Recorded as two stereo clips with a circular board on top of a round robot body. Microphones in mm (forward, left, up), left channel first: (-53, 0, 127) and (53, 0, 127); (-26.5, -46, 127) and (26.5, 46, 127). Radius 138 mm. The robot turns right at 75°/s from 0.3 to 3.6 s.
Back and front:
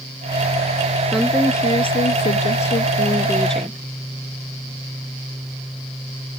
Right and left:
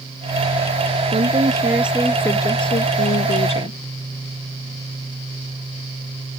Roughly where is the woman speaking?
Left.